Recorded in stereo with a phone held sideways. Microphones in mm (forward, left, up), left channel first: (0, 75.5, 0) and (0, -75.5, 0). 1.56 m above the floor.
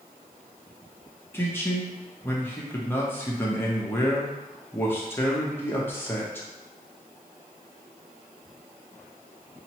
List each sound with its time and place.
1.3 s a man speaking: 15° left (ahead or behind), 0.8 m